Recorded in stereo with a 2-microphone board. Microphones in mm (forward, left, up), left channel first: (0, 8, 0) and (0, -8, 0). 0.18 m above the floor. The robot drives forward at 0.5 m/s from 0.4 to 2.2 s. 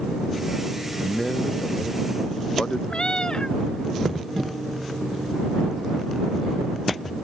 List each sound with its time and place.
1.0 s a man speaking: 50° left (ahead or behind); by 2.8 s 55° left (ahead or behind)
2.9 s a cat meowing: 55° left (ahead or behind)